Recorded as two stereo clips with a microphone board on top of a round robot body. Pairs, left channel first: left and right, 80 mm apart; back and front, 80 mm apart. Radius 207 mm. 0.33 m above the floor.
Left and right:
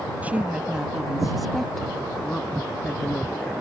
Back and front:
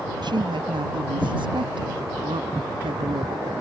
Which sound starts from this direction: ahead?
A woman speaking, at 0.2 s.